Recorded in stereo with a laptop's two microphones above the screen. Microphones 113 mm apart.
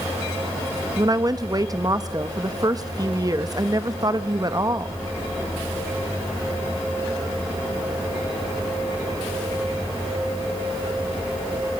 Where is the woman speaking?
35° right (ahead or behind), 1.0 m.